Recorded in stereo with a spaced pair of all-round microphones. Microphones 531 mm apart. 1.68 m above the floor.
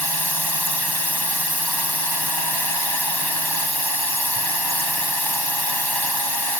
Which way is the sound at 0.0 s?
45° right (ahead or behind).